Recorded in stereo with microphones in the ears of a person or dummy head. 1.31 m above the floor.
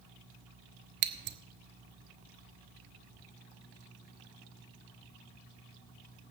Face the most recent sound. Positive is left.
turn(degrees=-55)  # may be behind; listen again after turning